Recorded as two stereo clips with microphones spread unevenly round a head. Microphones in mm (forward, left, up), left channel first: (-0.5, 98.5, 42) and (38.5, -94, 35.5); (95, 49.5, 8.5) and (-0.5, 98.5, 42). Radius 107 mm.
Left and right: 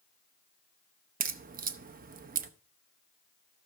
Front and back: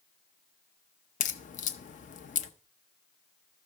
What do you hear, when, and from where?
1.2 s a crack: 30° right, 0.5 m